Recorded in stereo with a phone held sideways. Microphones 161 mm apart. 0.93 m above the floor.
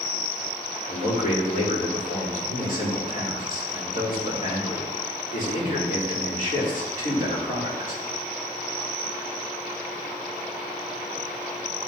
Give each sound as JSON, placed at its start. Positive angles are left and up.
{"t": 0.9, "sound": "a man speaking", "side_deg": 60, "distance_m": 2.5}